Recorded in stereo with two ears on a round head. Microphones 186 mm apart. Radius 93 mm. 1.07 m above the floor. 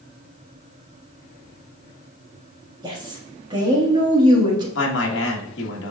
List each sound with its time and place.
2.8 s a woman speaking: 20° right (ahead or behind), 1.6 m
4.8 s a man speaking: 60° left (ahead or behind), 1.3 m